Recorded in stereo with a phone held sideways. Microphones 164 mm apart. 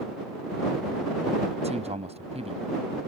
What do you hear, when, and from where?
1.6 s a man speaking: 40° right (ahead or behind)